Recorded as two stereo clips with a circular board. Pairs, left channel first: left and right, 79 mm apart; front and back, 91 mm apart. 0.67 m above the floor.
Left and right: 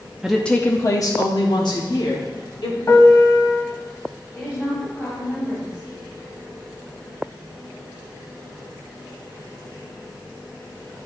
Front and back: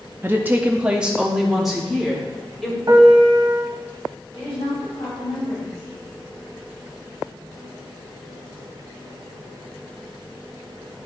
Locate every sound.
0.2 s a woman speaking: 165° right, 0.6 m; by 2.8 s 90° left, 2 m
2.9 s a piano: 135° left, 1.0 m
4.3 s a woman speaking: 20° left, 3.5 m